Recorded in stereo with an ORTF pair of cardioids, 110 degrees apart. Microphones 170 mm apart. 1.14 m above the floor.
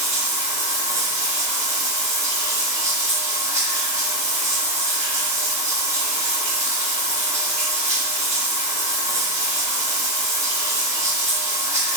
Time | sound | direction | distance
0.0 | running water | 15° right | 0.8 m